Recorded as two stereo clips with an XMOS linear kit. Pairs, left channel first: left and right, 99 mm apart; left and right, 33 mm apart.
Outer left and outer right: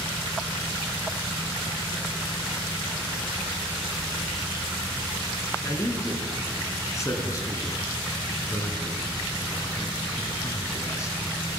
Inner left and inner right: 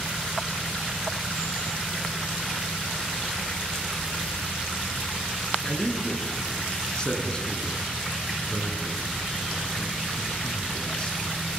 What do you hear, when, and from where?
5.6 s a man speaking: 30° left (ahead or behind), 5.5 m